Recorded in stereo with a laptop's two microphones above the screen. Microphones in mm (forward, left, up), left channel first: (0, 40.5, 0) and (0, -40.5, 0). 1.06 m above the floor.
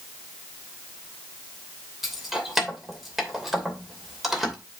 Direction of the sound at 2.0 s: 5° right (ahead or behind).